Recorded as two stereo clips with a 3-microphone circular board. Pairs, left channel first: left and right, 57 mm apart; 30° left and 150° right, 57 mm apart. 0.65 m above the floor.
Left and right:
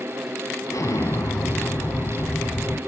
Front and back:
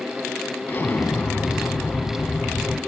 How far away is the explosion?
About 1.7 m.